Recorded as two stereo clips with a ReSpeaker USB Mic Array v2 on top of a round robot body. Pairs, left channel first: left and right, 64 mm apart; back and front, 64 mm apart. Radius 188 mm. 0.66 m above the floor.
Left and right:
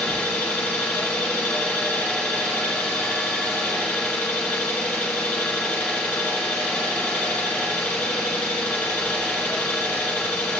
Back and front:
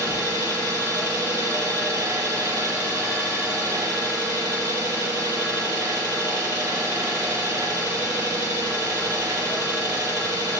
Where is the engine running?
25° left, 2 m.